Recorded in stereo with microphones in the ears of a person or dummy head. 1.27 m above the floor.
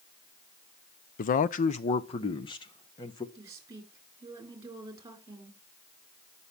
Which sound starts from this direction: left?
A man speaking, at 1.2 s.